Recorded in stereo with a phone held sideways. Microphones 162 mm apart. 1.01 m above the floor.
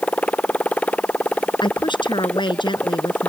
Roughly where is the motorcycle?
Centre.